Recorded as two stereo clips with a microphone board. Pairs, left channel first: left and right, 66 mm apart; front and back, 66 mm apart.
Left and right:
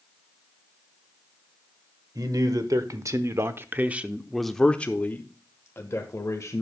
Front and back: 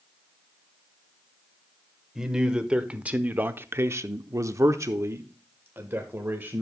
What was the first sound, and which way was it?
A man speaking, 100° right.